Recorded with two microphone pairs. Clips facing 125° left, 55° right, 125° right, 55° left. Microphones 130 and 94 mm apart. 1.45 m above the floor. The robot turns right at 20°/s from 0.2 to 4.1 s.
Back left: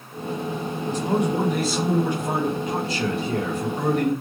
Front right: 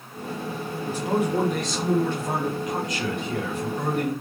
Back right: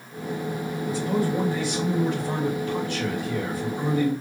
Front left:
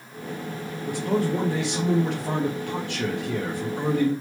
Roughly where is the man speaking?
Ahead left.